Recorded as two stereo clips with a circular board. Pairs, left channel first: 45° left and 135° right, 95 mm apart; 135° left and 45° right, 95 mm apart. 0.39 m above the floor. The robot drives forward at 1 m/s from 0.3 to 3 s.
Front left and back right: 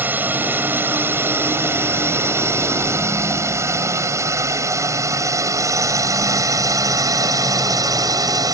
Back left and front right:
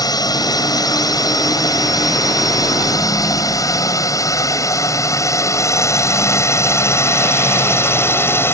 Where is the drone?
160° left; by 8.5 s 170° right.